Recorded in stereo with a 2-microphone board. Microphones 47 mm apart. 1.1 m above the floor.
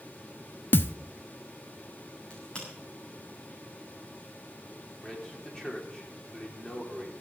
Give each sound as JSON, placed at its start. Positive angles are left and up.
{"t": 0.7, "sound": "a thud", "side_deg": 50, "distance_m": 0.7}
{"t": 2.3, "sound": "a crack", "side_deg": 20, "distance_m": 9.0}
{"t": 5.0, "sound": "a man speaking", "side_deg": 15, "distance_m": 4.0}